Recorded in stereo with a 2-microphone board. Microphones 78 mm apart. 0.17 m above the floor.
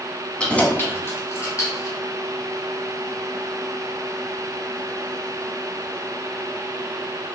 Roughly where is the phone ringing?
I don't hear a phone ringing.